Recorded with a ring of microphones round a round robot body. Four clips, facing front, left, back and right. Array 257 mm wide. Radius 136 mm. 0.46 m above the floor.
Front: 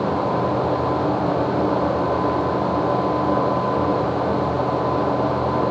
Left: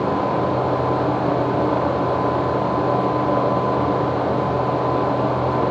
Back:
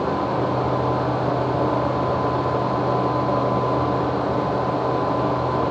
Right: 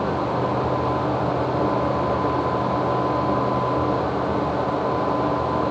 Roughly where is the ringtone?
I don't hear a ringtone.